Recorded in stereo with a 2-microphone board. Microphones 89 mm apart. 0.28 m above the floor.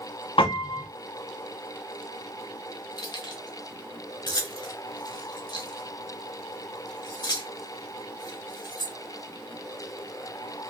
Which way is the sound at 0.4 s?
70° left (ahead or behind).